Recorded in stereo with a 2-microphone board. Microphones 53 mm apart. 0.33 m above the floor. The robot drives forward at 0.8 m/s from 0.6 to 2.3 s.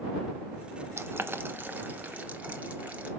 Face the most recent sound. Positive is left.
turn(degrees=-25)  # may be behind; listen again after turning